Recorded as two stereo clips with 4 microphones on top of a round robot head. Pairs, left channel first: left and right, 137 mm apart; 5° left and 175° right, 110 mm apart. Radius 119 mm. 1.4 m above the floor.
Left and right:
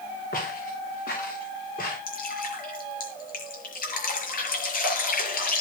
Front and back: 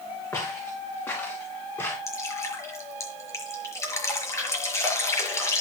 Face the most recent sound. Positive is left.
turn(degrees=70)